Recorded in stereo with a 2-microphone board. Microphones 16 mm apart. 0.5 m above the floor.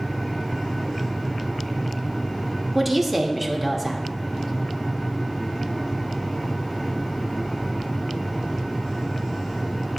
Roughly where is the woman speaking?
Centre.